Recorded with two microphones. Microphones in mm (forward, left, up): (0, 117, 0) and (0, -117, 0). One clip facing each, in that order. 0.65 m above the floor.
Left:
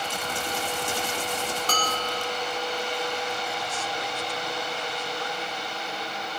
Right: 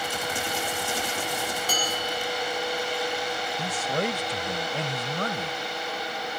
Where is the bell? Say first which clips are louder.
Even; 10° right (ahead or behind).